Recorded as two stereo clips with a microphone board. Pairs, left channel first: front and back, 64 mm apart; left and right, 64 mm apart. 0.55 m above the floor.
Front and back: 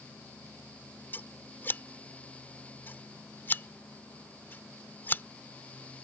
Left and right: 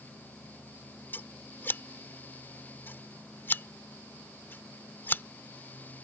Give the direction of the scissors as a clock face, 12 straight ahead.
10 o'clock.